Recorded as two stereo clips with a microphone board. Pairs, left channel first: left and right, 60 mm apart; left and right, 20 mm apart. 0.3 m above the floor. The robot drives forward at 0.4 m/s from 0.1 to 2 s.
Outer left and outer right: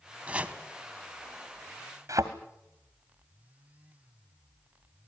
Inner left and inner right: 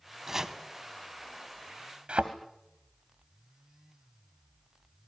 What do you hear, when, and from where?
0.3 s chopping: 25° right (ahead or behind), 1.9 m; by 0.6 s 20° right (ahead or behind), 2 m
2.1 s a thud: 65° right (ahead or behind), 2.5 m